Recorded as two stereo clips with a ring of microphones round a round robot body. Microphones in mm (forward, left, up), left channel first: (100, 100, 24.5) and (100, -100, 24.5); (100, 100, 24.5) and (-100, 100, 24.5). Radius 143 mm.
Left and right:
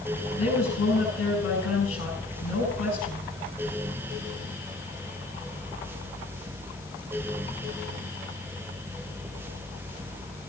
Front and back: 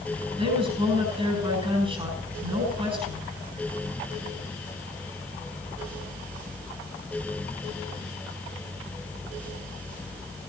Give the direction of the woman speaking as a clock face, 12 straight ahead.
8 o'clock.